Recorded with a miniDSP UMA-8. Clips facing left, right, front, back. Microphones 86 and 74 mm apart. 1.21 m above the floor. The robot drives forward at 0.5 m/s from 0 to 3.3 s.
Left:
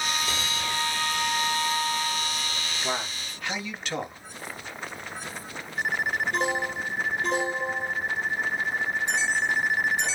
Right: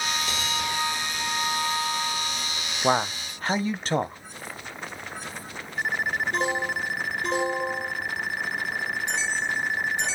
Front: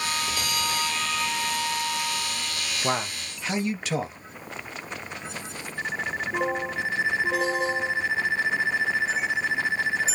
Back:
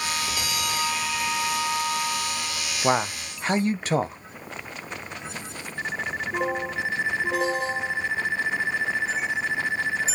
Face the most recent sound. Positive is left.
turn(degrees=-140)